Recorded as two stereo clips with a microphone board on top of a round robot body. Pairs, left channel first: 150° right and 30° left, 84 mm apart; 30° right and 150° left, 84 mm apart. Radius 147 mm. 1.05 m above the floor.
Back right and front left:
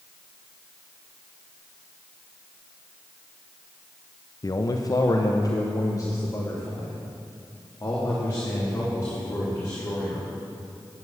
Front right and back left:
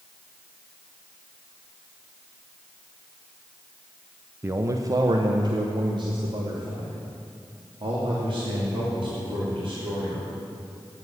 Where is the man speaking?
160° right, 0.9 m; by 10.3 s 150° left, 4.5 m.